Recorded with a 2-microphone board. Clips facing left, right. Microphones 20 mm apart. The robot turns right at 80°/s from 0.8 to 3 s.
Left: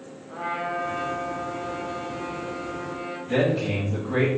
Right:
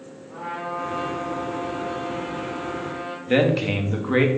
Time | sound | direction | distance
0.3 | a trumpet | 105° left | 2 m
3.3 | a man speaking | 75° right (ahead or behind) | 1.0 m